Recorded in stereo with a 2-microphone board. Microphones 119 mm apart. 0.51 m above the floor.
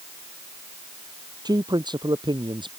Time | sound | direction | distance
1.4 | a man speaking | 35° right (ahead or behind) | ?